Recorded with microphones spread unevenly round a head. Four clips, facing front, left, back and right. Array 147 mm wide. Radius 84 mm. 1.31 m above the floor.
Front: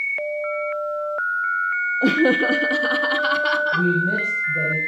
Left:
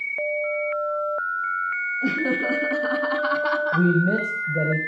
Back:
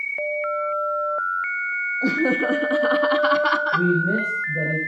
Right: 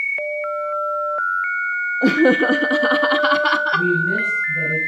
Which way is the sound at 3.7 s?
100° left.